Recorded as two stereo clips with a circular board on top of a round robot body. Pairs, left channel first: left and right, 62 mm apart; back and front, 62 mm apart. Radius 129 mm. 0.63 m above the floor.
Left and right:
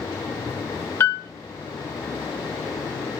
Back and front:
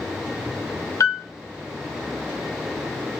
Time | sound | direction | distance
1.0 | a piano | 145° left | 0.6 m